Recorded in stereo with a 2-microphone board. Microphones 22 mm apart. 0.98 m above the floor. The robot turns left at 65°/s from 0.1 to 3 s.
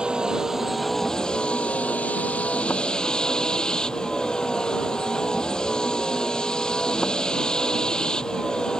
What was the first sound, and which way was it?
A vehicle, 135° right.